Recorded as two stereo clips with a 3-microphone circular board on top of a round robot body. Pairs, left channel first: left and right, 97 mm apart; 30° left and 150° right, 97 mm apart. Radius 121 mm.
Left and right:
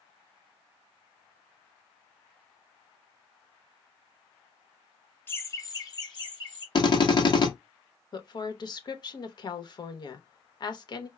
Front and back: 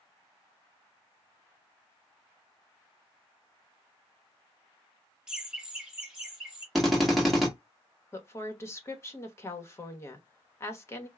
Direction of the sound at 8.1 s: 80° left.